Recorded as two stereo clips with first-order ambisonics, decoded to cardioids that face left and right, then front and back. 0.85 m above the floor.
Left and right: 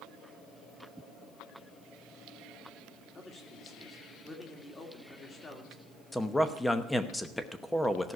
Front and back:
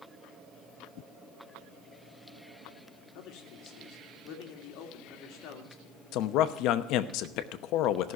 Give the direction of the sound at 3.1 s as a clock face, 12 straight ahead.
11 o'clock.